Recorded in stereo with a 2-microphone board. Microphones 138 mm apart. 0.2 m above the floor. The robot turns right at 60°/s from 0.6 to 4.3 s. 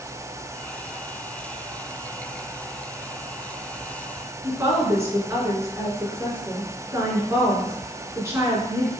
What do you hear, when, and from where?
4.4 s a woman speaking: 20° right (ahead or behind), 3 m